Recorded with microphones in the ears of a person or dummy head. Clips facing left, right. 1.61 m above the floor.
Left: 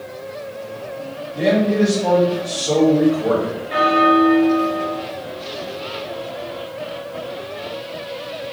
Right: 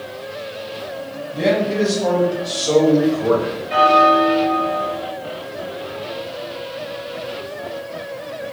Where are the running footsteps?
No running footsteps in this recording.